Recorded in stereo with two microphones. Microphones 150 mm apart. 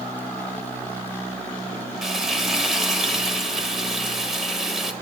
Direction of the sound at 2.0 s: Centre (ahead or behind).